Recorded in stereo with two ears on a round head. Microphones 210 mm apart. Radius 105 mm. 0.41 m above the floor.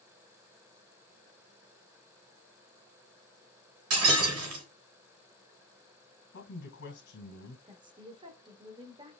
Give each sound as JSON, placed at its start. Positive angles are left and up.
{"t": 3.9, "sound": "breaking glass", "side_deg": -75, "distance_m": 3.5}
{"t": 6.3, "sound": "a man speaking", "side_deg": 55, "distance_m": 2.0}
{"t": 7.7, "sound": "a woman speaking", "side_deg": -20, "distance_m": 0.8}